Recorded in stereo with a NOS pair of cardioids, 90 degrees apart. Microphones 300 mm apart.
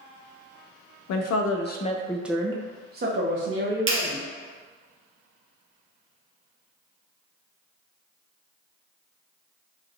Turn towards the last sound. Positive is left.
turn(degrees=-40)